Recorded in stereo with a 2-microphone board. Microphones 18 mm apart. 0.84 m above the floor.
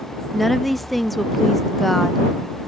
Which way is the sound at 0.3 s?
5° left (ahead or behind).